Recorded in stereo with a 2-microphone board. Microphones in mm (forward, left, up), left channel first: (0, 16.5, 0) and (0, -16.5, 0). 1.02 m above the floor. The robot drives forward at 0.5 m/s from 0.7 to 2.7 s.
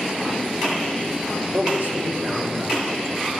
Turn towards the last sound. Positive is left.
turn(degrees=-60)  # may be behind; listen again after turning